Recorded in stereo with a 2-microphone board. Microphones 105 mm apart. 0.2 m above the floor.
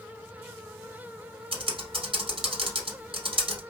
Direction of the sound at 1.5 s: 60° right (ahead or behind).